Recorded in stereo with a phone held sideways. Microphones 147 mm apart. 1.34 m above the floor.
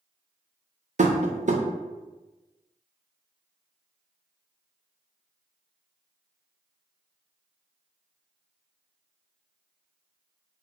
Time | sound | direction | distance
1.0 | tapping | 55° right (ahead or behind) | 0.5 m